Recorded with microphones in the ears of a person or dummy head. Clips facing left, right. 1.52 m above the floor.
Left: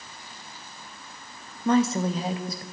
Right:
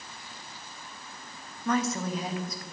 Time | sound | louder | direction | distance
1.6 | a woman speaking | left 6 dB | 25° left (ahead or behind) | 0.7 m